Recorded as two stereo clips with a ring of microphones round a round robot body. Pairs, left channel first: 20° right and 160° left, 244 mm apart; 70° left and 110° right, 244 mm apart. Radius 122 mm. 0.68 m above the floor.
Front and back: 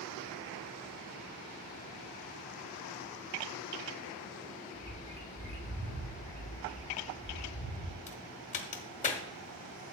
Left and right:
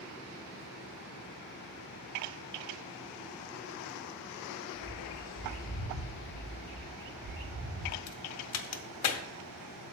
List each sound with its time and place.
4.8 s a bird: 95° left, 2.5 m
6.6 s a bird: 115° right, 3 m
8.1 s a crack: 40° left, 0.8 m